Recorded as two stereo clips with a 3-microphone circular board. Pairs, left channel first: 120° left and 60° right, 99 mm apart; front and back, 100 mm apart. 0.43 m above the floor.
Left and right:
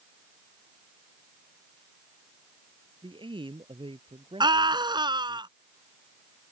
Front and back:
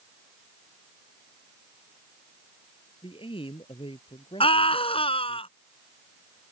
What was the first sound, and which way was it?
A man speaking, 25° right.